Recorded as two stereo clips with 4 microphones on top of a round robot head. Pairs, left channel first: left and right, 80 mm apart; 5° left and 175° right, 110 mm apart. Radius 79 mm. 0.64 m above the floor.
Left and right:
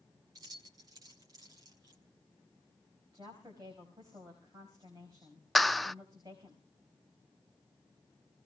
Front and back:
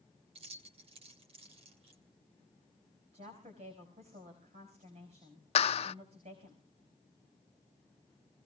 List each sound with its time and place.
0.3 s keys jangling: 140° right, 2 m
3.1 s a woman speaking: 145° right, 5 m
5.5 s a clap: straight ahead, 0.6 m